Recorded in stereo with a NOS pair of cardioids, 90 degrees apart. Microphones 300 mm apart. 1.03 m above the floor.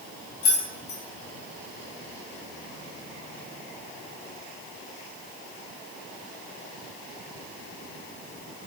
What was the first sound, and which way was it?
Keys jangling, 65° left.